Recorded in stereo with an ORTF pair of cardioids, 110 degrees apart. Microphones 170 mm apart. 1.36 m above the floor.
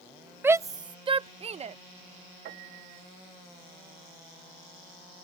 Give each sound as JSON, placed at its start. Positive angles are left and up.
{"t": 0.4, "sound": "a shout", "azimuth_deg": -10}
{"t": 2.5, "sound": "a piano", "azimuth_deg": -70}